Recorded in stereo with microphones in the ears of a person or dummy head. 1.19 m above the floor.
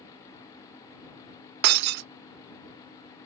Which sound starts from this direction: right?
Breaking glass, at 1.6 s.